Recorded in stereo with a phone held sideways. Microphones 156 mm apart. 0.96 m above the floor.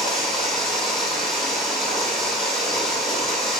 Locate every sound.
0.0 s running water: centre (ahead or behind), 7 m